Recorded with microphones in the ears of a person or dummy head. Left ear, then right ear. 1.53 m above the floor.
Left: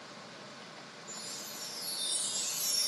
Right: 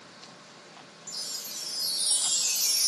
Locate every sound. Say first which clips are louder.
1.1 s a chime: right 8 dB; 35° right (ahead or behind), 0.7 m